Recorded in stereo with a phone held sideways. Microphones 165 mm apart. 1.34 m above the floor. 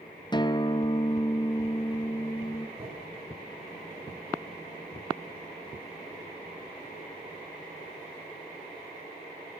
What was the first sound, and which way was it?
A guitar, 25° left (ahead or behind).